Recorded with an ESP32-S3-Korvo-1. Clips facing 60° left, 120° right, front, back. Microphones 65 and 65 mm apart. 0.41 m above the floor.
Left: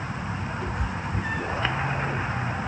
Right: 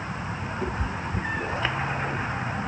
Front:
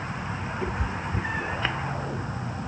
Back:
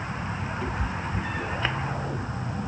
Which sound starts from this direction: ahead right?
A cat meowing, at 0.6 s.